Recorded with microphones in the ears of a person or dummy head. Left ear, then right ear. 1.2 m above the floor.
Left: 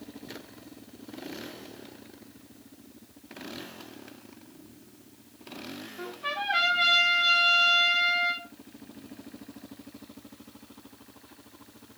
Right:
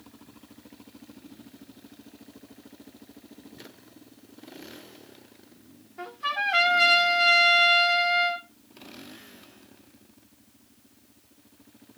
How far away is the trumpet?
About 1.9 m.